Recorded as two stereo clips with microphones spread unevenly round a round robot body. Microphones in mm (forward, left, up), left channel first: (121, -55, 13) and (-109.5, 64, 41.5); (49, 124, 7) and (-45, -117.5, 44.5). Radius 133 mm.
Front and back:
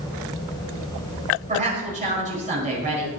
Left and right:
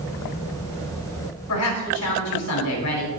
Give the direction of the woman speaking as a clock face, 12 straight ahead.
9 o'clock.